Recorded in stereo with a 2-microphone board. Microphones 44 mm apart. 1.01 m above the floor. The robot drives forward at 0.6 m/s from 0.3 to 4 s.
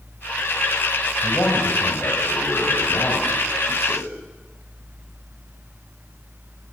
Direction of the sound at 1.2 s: 75° left (ahead or behind).